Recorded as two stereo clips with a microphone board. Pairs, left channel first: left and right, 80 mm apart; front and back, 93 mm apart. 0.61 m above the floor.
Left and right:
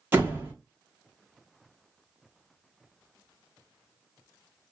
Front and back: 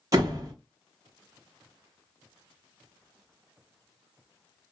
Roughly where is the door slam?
Behind right.